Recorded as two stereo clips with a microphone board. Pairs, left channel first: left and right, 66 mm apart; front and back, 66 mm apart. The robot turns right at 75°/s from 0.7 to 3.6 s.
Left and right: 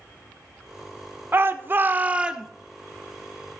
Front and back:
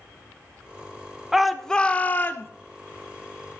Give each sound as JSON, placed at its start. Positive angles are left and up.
{"t": 1.3, "sound": "a shout", "azimuth_deg": -100, "distance_m": 0.9}